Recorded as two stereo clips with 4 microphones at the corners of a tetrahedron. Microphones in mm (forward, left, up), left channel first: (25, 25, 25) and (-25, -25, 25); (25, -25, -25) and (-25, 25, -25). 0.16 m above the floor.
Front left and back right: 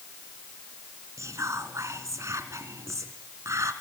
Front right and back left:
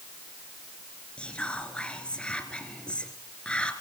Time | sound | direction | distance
1.2 | whispering | 115° right | 1.6 m